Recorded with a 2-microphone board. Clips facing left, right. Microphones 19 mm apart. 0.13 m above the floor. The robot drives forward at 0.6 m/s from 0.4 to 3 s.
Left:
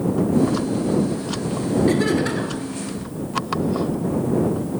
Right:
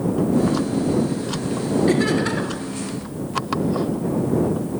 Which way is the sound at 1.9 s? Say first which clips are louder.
Right 1 dB; 5° right (ahead or behind).